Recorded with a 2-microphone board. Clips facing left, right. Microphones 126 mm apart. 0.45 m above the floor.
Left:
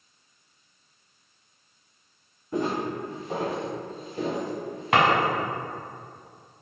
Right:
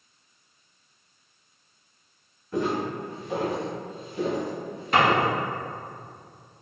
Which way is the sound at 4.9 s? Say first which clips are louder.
Even; 75° left (ahead or behind).